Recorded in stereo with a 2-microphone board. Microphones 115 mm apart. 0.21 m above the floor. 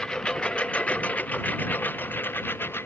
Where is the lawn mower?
5° left (ahead or behind); by 2.9 s 20° left (ahead or behind).